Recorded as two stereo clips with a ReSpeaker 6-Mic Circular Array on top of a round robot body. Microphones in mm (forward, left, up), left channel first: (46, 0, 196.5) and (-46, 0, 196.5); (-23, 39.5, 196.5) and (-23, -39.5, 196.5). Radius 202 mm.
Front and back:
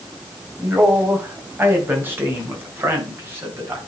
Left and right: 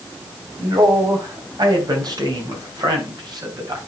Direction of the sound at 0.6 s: 110° right.